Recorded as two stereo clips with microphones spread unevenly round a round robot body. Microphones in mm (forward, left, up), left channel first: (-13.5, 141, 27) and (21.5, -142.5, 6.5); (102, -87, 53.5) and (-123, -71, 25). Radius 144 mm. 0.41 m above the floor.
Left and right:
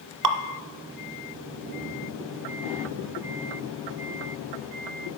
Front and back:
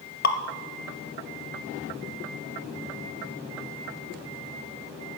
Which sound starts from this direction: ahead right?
Dripping, at 0.2 s.